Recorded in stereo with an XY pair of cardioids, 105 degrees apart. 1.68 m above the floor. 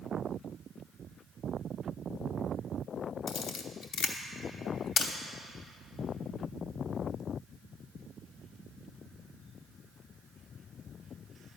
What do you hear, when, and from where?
3.3 s a camera shutter: 70° left, 0.9 m